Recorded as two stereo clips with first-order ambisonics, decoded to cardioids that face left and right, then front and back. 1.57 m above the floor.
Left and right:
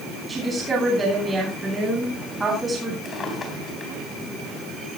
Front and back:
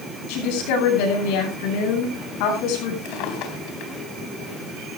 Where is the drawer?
20° left, 3.5 m.